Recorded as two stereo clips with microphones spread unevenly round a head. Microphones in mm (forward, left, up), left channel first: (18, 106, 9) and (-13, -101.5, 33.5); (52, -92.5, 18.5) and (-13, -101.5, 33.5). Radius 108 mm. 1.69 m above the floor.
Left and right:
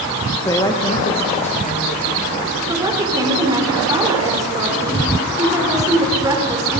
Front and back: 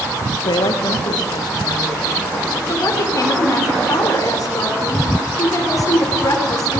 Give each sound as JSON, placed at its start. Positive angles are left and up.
{"t": 0.4, "sound": "a woman speaking", "azimuth_deg": 5, "distance_m": 2.0}
{"t": 2.7, "sound": "a woman speaking", "azimuth_deg": -25, "distance_m": 4.5}